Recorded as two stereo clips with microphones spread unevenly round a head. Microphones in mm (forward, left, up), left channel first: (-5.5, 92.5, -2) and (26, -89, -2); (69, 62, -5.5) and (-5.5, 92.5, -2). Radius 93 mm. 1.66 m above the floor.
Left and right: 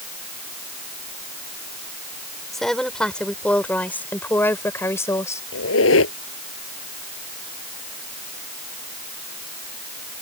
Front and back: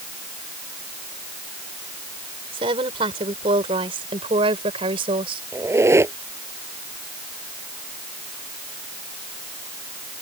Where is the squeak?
105° left.